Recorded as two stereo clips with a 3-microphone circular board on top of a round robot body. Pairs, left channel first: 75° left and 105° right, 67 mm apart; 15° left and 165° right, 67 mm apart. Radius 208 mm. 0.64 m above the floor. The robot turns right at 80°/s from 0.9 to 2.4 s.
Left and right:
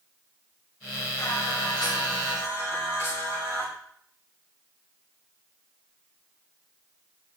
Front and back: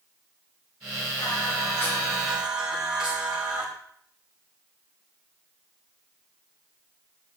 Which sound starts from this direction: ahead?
Singing, at 1.2 s.